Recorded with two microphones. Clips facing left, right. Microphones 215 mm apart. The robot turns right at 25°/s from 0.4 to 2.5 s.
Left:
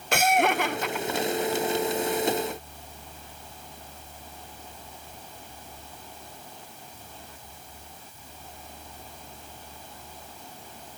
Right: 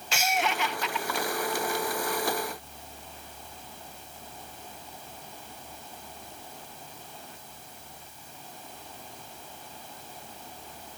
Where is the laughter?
55° left (ahead or behind), 0.5 m; by 1.6 s 40° left (ahead or behind), 0.5 m.